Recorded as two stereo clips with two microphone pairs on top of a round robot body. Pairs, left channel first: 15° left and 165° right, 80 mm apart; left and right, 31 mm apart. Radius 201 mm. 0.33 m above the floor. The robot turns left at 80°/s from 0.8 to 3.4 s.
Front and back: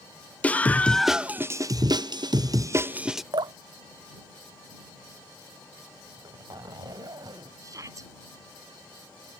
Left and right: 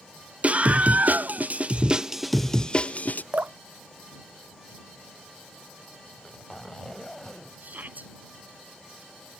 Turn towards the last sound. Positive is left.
turn(degrees=-115)